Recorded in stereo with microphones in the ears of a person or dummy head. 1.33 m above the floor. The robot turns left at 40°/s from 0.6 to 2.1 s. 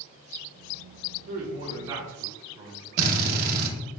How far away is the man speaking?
About 1.2 m.